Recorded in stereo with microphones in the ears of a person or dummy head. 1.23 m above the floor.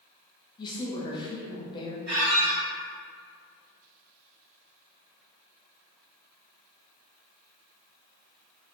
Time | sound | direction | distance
0.6 | a woman speaking | 25° left (ahead or behind) | 0.7 m
2.1 | a squeak | 40° right (ahead or behind) | 1.3 m